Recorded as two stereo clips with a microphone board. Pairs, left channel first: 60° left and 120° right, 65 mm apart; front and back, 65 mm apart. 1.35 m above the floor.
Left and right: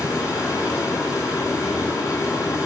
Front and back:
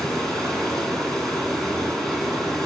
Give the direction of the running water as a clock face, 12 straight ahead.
9 o'clock.